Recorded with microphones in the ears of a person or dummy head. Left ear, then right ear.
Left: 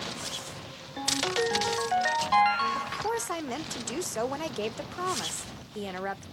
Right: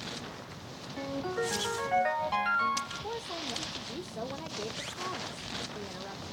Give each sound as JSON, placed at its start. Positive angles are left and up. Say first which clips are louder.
{"t": 1.0, "sound": "a ringtone", "louder": "left 6 dB", "side_deg": 20, "distance_m": 1.1}
{"t": 2.8, "sound": "a woman speaking", "louder": "left 5 dB", "side_deg": 70, "distance_m": 0.5}